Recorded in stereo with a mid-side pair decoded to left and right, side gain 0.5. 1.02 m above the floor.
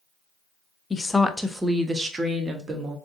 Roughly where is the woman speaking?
Ahead left.